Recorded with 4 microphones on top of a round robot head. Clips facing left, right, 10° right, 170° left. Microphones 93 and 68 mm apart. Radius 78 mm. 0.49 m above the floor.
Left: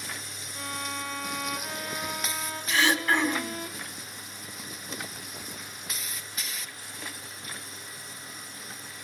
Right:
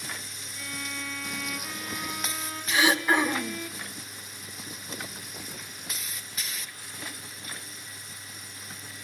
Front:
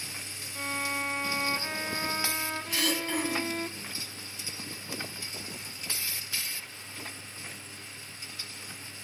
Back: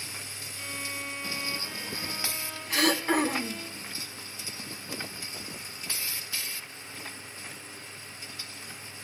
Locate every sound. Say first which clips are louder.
0.6 s a violin: left 3 dB, front 6 dB; 35° left, 1.2 m
2.7 s throat clearing: right 1 dB, back 7 dB; 165° right, 1.8 m